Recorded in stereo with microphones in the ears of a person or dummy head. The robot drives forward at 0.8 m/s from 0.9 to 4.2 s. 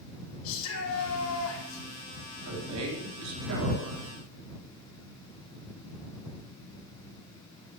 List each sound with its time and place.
0.4 s a shout: 75° left (ahead or behind), 4 m; by 1.9 s 85° left, 4 m
2.5 s a man speaking: 85° right, 4.5 m; by 4.1 s 65° right (ahead or behind), 4.5 m